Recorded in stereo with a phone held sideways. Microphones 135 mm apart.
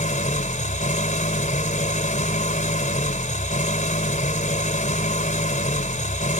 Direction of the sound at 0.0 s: 70° left (ahead or behind).